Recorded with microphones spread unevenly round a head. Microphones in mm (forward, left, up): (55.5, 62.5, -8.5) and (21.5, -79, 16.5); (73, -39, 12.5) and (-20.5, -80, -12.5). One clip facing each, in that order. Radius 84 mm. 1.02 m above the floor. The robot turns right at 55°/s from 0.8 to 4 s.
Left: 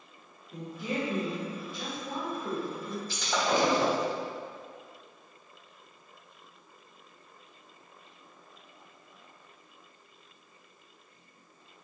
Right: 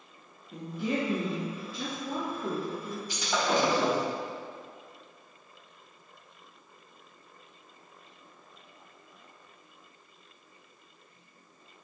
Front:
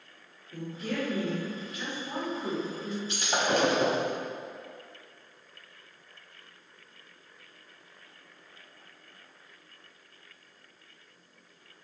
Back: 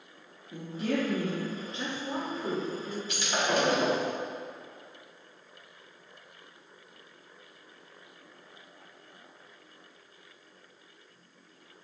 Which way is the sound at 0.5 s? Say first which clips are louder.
Right 3 dB, back 3 dB; 150° right.